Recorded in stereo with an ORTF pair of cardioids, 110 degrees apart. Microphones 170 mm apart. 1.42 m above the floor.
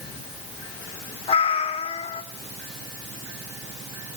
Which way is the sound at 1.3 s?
35° left.